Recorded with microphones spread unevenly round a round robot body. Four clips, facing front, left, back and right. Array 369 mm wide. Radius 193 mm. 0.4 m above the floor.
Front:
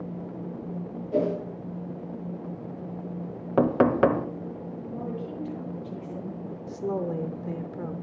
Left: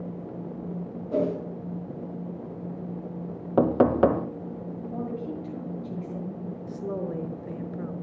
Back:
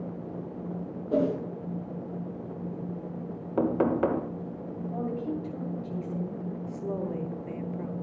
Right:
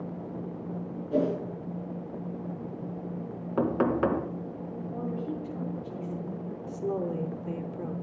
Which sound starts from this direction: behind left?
A woman speaking, at 4.9 s.